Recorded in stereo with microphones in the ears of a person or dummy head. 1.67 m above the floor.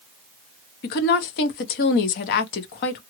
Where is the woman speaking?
60° left (ahead or behind), 0.8 m.